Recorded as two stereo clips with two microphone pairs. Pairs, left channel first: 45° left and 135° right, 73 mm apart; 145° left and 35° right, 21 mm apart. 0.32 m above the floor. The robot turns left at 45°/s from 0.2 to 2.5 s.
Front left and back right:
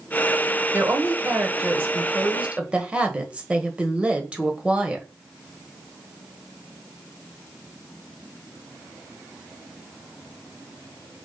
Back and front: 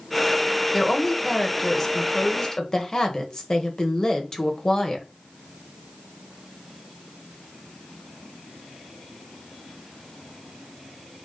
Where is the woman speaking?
110° right, 1.4 m; by 5.0 s 170° left, 1.4 m.